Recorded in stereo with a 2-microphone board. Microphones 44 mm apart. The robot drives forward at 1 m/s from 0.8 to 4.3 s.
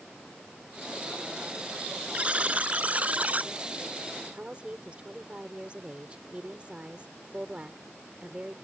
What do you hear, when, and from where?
2.1 s a buzzer: 30° right (ahead or behind); by 3.5 s 40° right (ahead or behind)
4.3 s a woman speaking: 25° right (ahead or behind)